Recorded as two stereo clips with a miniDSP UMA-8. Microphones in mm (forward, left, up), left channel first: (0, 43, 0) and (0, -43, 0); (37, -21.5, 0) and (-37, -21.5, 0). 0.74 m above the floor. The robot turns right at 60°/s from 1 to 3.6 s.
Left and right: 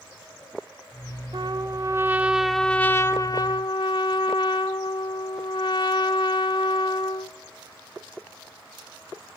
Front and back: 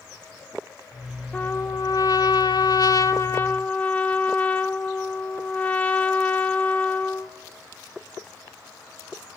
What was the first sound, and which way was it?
A trumpet, 70° right.